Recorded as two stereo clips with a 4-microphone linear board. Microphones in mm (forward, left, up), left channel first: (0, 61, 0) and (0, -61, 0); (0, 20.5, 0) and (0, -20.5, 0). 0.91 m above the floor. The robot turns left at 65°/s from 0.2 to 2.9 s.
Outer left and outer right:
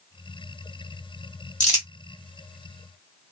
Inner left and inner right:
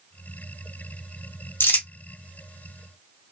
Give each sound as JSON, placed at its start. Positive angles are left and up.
{"t": 1.6, "sound": "crumpling", "side_deg": 75, "distance_m": 1.5}